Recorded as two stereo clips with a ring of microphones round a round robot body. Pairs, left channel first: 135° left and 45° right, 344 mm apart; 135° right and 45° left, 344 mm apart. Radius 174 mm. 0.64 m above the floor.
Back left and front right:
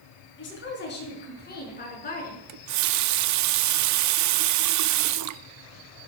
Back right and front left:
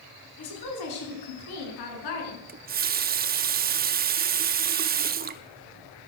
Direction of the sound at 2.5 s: 15° right.